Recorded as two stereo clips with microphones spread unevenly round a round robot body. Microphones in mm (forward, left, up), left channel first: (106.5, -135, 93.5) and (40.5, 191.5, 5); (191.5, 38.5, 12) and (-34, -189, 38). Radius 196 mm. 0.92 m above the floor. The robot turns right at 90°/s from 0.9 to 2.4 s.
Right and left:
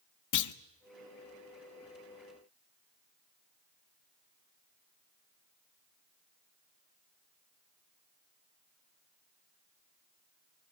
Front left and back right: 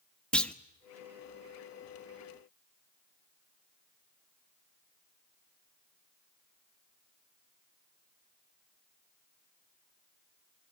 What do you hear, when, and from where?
0.3 s a clunk: 40° right, 1.2 m